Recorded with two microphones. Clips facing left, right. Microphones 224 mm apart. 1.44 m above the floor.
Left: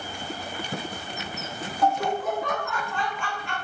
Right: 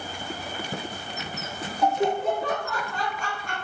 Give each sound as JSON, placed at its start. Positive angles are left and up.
{"t": 1.8, "sound": "laughter", "side_deg": -15, "distance_m": 0.5}